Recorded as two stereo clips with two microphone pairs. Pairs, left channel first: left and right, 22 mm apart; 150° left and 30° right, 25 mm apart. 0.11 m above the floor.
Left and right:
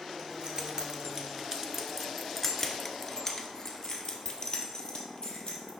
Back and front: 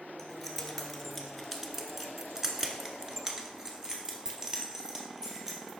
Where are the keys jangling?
130° right, 1.3 m; by 5.7 s 40° left, 2 m.